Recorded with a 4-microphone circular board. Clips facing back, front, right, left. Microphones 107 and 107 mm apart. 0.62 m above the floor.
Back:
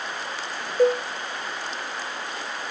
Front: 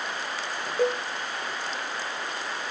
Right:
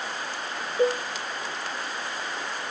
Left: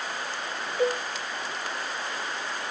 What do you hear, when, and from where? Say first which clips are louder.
0.8 s a cowbell: back 6 dB, right 2 dB; 25° right, 1.2 m